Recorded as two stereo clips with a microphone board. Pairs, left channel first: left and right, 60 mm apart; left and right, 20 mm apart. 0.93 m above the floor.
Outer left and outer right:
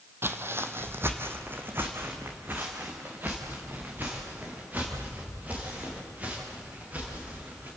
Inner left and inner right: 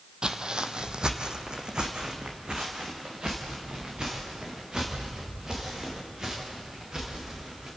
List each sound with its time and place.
0.2 s footsteps: 40° right (ahead or behind), 1.2 m; by 7.7 s 30° right (ahead or behind), 8.5 m